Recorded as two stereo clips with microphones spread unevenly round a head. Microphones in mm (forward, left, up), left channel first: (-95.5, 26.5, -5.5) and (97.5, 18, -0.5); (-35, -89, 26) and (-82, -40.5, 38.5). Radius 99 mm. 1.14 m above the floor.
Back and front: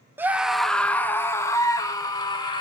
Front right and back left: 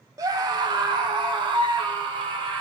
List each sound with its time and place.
0.2 s a scream: 75° left, 0.7 m; by 2.6 s 110° left, 1.9 m